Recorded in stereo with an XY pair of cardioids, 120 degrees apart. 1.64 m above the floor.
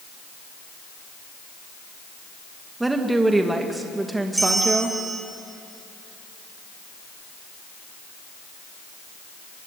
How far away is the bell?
About 3 m.